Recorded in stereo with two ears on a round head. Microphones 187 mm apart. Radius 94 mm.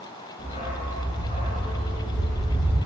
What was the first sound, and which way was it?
A dog barking, 35° left (ahead or behind).